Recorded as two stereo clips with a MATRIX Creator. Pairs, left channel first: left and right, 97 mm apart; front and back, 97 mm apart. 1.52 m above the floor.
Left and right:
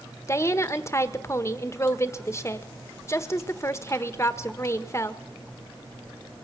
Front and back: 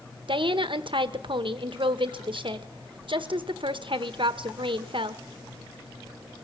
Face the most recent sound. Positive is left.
turn(degrees=150)